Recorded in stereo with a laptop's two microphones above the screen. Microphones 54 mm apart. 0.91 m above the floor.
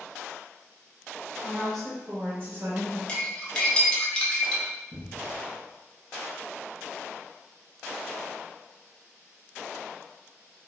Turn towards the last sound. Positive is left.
turn(degrees=-65)  # may be behind; listen again after turning